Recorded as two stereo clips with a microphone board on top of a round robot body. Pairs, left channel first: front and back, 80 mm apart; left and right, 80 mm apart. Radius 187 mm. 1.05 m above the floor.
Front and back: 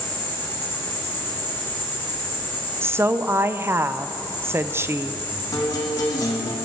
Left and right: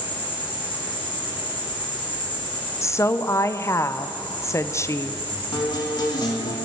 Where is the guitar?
50° left, 0.7 m.